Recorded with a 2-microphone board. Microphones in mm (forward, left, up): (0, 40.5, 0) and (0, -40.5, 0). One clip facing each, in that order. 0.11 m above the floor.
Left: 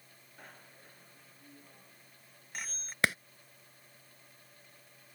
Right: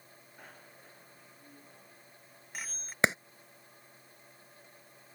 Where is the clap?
25° right (ahead or behind).